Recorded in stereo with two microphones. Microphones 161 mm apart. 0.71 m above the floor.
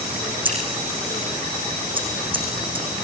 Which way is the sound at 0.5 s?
35° right (ahead or behind).